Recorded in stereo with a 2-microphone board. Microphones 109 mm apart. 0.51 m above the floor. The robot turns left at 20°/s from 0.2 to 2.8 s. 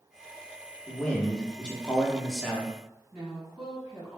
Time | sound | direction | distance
0.9 | a man speaking | 15° left (ahead or behind) | 0.7 m
3.1 | a woman speaking | 5° right (ahead or behind) | 1.9 m